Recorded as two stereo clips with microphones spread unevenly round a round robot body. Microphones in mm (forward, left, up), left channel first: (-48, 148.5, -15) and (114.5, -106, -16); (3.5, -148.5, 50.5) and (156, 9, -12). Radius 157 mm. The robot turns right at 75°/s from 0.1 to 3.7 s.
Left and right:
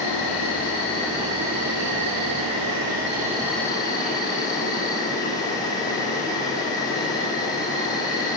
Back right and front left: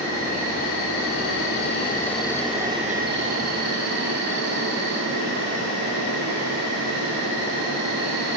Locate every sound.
0.0 s an insect: 135° left, 1.4 m; by 8.4 s 45° left, 1.4 m